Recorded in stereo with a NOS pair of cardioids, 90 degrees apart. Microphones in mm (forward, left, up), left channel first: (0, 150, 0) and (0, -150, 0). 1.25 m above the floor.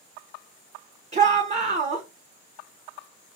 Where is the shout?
20° right, 0.7 m.